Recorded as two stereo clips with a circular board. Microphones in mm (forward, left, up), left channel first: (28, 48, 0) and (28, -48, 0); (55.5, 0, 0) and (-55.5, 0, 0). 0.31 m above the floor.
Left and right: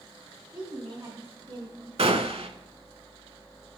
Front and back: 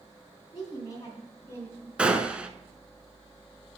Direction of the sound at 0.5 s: 50° right.